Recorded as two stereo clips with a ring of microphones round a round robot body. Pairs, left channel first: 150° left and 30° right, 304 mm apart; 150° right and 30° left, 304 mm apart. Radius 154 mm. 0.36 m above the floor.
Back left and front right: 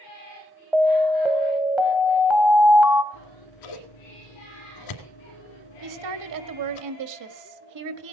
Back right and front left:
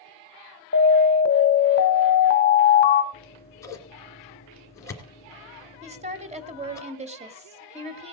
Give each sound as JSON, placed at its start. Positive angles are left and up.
{"t": 0.7, "sound": "an alarm", "azimuth_deg": -115, "distance_m": 1.3}
{"t": 3.1, "sound": "scissors", "azimuth_deg": 130, "distance_m": 2.5}
{"t": 5.8, "sound": "a woman speaking", "azimuth_deg": -40, "distance_m": 1.6}